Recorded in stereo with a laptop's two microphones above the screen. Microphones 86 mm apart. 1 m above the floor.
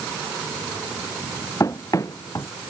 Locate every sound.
1.6 s running footsteps: 40° left (ahead or behind)